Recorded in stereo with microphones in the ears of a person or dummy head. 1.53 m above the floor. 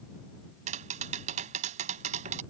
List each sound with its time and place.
0.7 s tapping: 35° right (ahead or behind)